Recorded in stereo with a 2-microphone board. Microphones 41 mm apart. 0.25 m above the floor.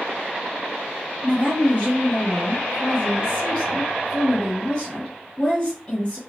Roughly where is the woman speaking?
Left.